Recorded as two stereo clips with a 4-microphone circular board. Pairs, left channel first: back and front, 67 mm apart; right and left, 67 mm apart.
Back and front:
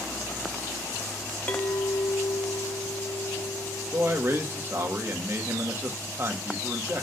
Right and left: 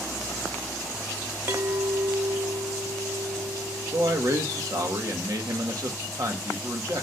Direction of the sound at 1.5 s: 125° left.